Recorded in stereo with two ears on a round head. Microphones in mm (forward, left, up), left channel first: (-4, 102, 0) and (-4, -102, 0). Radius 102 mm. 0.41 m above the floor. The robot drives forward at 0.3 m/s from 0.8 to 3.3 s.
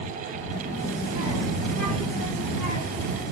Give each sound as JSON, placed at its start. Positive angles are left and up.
{"t": 0.5, "sound": "a child speaking", "side_deg": 70, "distance_m": 2.5}